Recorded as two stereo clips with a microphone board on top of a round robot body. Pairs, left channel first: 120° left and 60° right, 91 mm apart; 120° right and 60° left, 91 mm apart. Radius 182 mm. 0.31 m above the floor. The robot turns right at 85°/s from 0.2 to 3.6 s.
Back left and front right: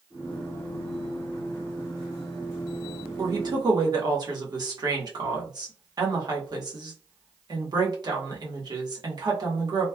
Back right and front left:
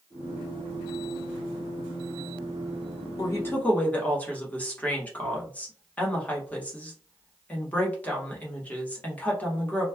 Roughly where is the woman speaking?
Right.